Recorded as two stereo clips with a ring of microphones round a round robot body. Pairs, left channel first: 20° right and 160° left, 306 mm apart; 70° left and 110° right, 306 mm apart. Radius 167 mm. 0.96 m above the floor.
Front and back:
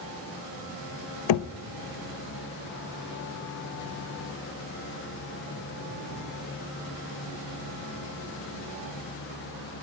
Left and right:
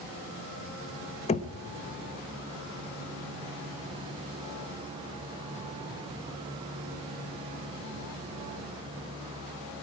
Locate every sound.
1.3 s knocking: 5° right, 0.5 m